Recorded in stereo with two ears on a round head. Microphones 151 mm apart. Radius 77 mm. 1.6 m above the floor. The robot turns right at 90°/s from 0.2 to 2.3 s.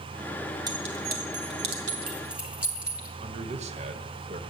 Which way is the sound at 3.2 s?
45° right (ahead or behind).